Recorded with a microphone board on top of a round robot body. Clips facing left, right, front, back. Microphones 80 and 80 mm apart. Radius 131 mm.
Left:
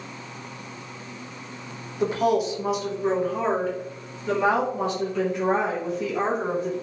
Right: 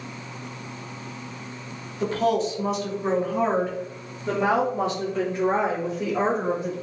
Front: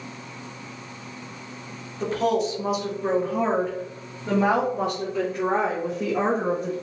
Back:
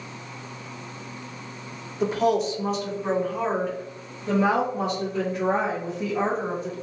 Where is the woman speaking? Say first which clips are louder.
Left 1 dB, back 1 dB; 125° left, 1.2 m; by 6.7 s 30° right, 3 m.